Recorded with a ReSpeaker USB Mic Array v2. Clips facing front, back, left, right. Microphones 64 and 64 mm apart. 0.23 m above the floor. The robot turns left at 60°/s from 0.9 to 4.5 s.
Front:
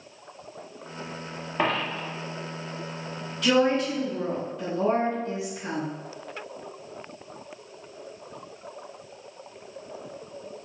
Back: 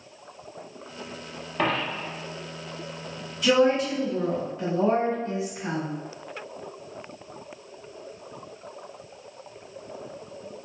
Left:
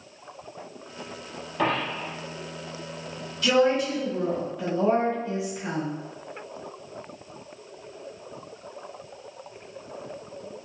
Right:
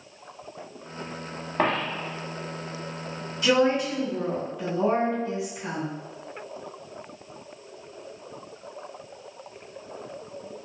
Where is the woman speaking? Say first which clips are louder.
Back 1 dB, even; 115° right, 1.4 m; by 5.9 s straight behind, 1.4 m.